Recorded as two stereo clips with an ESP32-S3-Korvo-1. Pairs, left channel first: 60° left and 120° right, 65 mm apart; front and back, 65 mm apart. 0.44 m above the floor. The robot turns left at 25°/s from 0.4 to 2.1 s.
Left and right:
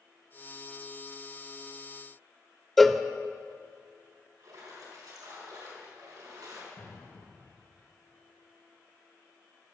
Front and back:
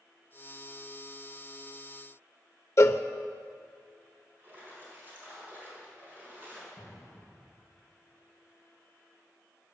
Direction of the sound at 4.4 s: 120° right.